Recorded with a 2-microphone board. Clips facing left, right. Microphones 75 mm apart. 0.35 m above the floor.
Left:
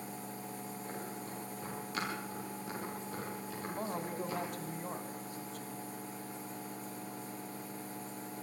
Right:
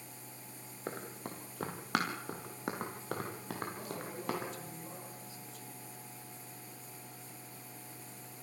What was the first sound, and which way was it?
Running footsteps, 70° right (ahead or behind).